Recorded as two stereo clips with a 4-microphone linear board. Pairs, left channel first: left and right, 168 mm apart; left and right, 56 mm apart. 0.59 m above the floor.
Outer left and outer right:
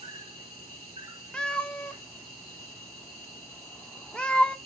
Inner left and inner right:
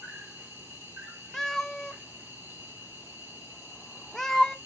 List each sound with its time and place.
0.0 s an insect: 40° right (ahead or behind), 4 m
1.3 s a cat meowing: 5° left (ahead or behind), 0.5 m